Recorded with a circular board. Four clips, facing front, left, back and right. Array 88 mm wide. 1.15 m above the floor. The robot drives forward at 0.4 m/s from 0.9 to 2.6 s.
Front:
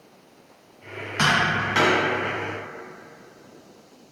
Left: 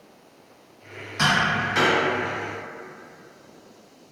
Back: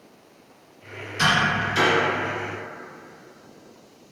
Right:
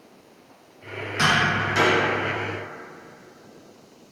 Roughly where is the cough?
No cough in this recording.